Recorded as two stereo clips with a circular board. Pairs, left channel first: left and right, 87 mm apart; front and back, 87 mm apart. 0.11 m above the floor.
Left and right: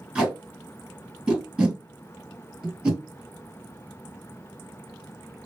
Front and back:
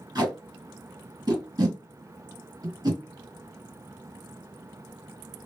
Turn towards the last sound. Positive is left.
turn(degrees=-165)